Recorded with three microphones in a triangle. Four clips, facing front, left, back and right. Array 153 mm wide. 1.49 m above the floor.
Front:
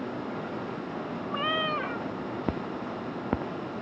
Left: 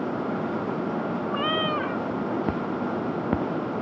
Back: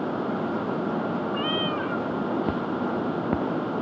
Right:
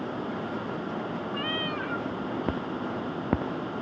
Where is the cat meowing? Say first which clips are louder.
Left 6 dB, back 3 dB; 65° left.